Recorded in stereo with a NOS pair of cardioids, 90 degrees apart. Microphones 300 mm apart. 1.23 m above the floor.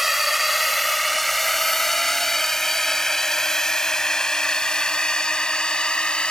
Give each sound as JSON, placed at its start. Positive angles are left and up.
{"t": 0.0, "sound": "a drone", "azimuth_deg": 0}